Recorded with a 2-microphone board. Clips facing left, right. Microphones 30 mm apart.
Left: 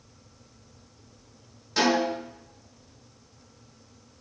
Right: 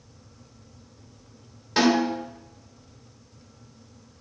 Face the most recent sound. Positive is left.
turn(degrees=-35)  # may be behind; listen again after turning